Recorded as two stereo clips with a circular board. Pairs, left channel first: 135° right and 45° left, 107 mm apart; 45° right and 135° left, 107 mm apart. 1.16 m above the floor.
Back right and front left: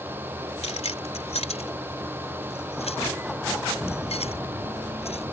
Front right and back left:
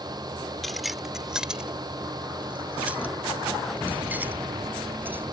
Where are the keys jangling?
135° right; by 5.2 s 155° right.